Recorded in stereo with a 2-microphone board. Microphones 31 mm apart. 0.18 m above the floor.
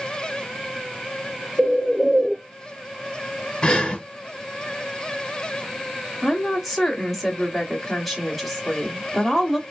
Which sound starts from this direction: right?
A bird, at 1.6 s.